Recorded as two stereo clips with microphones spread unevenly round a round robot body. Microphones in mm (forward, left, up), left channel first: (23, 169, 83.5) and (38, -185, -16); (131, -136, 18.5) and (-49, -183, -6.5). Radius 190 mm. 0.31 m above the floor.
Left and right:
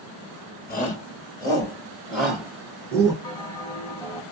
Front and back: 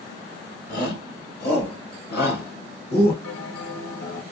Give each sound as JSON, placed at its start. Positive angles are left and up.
{"t": 0.7, "sound": "a shout", "azimuth_deg": 20, "distance_m": 1.4}
{"t": 3.2, "sound": "a bell", "azimuth_deg": 5, "distance_m": 0.9}